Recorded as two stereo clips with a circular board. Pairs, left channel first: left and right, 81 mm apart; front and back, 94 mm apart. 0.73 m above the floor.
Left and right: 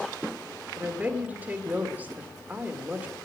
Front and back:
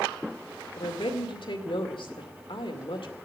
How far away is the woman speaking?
About 2 m.